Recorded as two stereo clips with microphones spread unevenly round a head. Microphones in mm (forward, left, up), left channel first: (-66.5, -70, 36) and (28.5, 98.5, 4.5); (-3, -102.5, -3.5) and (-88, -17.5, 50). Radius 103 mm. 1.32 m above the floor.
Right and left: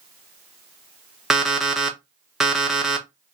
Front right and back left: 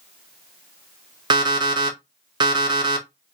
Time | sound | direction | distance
1.3 | an alarm clock | 155° left | 0.6 m